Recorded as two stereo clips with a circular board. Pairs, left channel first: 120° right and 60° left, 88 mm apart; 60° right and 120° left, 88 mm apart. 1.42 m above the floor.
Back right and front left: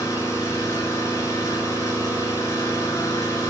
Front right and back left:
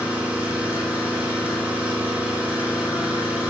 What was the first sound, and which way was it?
An engine running, 170° right.